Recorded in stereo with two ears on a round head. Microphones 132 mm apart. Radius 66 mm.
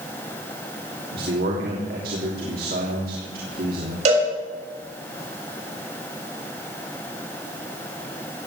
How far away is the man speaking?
About 3 m.